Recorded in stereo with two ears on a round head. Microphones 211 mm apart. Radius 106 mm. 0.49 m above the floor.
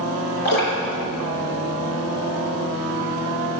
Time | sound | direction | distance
0.5 | dripping | 45° left (ahead or behind) | 5 m